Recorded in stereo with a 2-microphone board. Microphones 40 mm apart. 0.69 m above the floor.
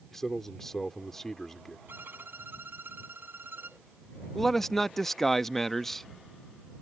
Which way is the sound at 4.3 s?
5° left (ahead or behind).